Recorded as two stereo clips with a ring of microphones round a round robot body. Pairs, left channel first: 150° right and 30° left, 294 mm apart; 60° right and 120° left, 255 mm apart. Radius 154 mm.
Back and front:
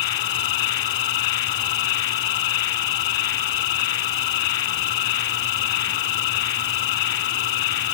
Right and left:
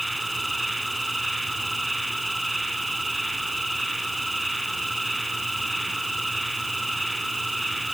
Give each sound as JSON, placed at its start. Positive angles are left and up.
{"t": 0.0, "sound": "an insect", "azimuth_deg": -150}